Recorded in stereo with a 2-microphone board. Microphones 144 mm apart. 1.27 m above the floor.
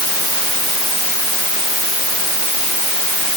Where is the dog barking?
No dog barking in this recording.